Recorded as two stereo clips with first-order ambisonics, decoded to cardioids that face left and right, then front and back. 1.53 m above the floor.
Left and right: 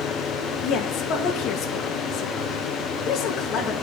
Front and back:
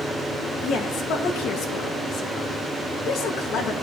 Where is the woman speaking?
45° left, 1.2 m.